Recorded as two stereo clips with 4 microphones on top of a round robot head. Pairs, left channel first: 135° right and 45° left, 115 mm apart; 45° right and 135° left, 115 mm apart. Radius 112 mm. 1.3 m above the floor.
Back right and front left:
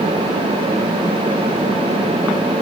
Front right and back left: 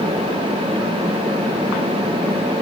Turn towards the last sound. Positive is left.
No sound to turn to.